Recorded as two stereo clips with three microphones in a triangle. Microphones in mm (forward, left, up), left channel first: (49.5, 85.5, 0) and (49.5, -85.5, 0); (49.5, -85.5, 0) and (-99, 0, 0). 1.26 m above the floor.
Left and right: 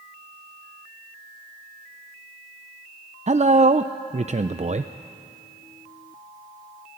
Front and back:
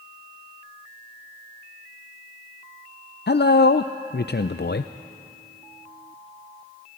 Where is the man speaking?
40° right, 0.5 m.